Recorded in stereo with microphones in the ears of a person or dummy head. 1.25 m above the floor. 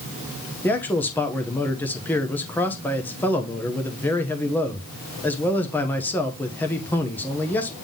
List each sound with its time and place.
0.6 s a man speaking: 10° left (ahead or behind), 1.0 m